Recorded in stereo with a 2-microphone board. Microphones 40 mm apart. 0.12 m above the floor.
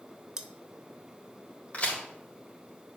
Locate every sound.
0.4 s cutlery clinking: 20° right (ahead or behind), 0.7 m
1.7 s a crack: 35° left (ahead or behind), 4 m